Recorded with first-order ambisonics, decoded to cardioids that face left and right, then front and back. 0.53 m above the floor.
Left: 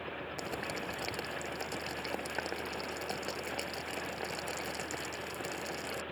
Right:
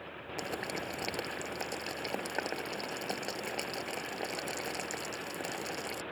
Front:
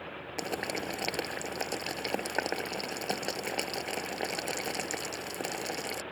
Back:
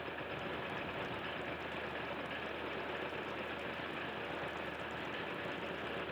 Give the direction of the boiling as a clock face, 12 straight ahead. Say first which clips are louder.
Right 3 dB, front 7 dB; 12 o'clock.